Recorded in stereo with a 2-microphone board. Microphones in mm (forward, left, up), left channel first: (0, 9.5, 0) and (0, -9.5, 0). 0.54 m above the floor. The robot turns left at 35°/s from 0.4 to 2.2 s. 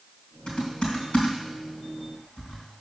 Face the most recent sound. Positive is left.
turn(degrees=75)  # may be behind; listen again after turning